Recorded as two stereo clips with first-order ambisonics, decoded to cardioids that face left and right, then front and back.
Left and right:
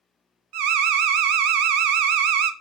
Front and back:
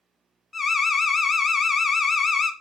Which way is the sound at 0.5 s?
80° right.